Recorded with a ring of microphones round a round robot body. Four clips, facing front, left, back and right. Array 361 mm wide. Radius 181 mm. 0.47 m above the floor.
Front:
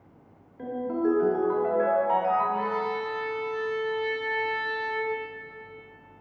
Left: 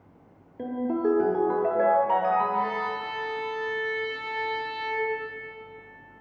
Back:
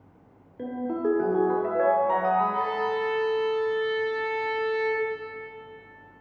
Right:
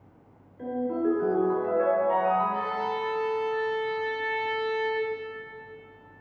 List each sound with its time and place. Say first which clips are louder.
0.6 s a ringtone: left 1 dB, front 1 dB; 125° left, 1.2 m
2.5 s a violin: left 1 dB, back 2 dB; 150° right, 1.6 m